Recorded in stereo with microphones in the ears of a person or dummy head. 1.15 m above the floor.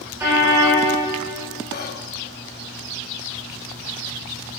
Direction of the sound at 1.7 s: 50° left (ahead or behind).